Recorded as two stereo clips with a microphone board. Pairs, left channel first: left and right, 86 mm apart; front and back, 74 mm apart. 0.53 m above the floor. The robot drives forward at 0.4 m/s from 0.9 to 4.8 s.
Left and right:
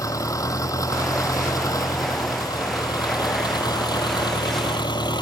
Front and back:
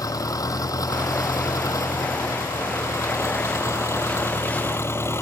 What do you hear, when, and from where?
0.0 s an engine running: 40° left; by 5.2 s 55° left